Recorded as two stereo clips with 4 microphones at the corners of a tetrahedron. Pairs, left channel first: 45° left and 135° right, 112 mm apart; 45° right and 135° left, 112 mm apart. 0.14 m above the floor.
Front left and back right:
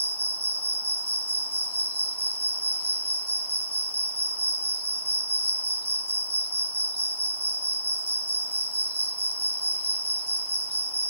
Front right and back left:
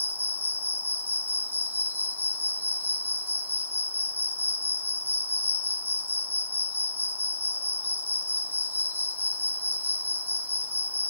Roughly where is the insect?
Behind right.